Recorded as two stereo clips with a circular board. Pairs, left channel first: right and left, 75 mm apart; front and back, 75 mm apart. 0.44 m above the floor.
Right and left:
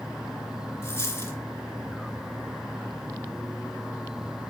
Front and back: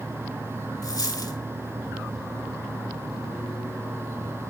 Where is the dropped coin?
35° right, 2 m.